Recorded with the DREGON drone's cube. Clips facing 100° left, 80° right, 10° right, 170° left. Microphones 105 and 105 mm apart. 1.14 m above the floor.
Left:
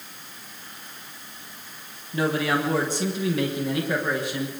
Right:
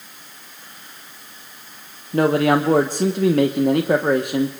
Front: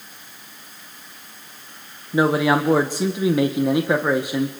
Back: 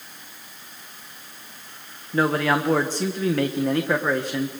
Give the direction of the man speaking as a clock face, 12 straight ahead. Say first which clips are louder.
Right 8 dB, front 3 dB; 3 o'clock.